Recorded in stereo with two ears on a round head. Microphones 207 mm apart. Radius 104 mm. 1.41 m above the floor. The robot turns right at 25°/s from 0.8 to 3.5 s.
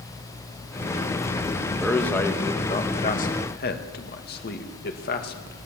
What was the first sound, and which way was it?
A man speaking, centre (ahead or behind).